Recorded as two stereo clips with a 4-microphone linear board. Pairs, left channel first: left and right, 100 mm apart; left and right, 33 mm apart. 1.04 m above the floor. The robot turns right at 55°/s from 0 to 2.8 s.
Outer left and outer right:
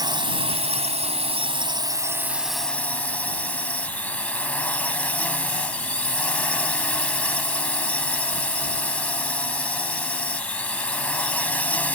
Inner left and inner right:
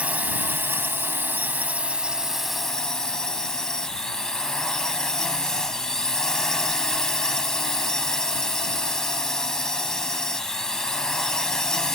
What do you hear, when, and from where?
0.0 s a drone: 140° right; by 12.0 s 15° left